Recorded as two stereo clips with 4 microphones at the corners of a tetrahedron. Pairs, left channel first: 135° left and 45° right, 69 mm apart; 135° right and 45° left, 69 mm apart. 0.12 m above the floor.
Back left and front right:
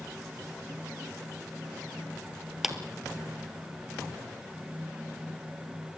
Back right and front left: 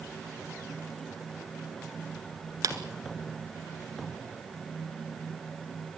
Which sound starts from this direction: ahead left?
A clap, at 2.6 s.